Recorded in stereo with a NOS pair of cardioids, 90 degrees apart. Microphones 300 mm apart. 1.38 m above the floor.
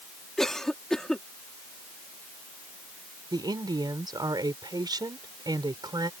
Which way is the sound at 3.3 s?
15° right.